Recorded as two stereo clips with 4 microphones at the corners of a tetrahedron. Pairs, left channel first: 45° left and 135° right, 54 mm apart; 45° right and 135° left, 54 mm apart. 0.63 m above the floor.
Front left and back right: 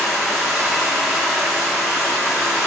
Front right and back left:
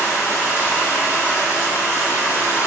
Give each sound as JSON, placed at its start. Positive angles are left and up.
{"t": 0.0, "sound": "running water", "azimuth_deg": -45, "distance_m": 1.2}